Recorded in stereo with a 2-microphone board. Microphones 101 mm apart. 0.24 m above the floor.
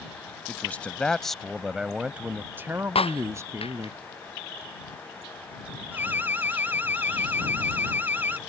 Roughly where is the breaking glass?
Left.